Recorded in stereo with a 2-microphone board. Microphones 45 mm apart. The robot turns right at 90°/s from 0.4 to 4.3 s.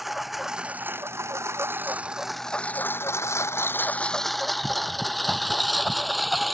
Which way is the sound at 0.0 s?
5° right (ahead or behind).